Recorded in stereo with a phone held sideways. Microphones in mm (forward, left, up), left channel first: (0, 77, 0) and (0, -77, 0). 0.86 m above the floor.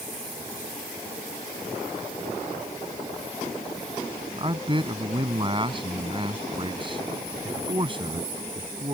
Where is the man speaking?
35° right (ahead or behind).